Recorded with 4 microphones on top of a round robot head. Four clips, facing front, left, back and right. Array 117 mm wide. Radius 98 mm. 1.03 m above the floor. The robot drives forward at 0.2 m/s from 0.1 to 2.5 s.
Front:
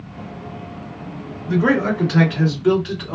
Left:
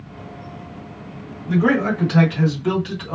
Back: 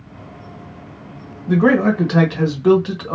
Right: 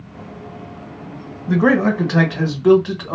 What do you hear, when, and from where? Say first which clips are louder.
1.5 s a man speaking: right 3 dB, back 3 dB; 130° right, 1.4 m; by 3.2 s 135° right, 1.6 m